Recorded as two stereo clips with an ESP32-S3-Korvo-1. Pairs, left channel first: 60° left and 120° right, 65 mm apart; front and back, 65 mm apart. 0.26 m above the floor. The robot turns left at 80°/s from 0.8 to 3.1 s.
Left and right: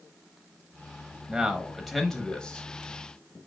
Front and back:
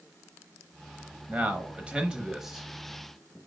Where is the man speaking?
170° right, 0.9 m; by 3.4 s 45° left, 0.9 m.